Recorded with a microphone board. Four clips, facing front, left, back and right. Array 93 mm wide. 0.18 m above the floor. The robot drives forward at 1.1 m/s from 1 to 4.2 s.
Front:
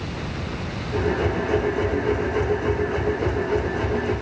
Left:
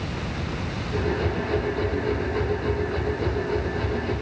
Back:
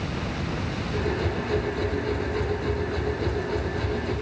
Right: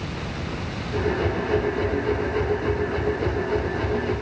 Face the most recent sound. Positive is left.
No sound to turn to.